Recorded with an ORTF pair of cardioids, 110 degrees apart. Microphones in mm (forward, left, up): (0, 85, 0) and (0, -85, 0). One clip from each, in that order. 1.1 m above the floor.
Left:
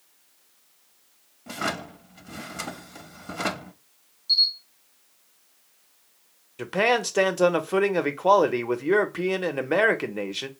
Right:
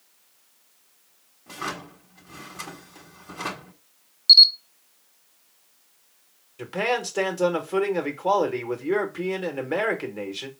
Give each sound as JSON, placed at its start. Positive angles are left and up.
{"t": 1.5, "sound": "a drawer", "azimuth_deg": 35, "distance_m": 0.8}
{"t": 4.3, "sound": "a camera shutter", "azimuth_deg": -65, "distance_m": 0.5}
{"t": 6.6, "sound": "a man speaking", "azimuth_deg": 25, "distance_m": 0.7}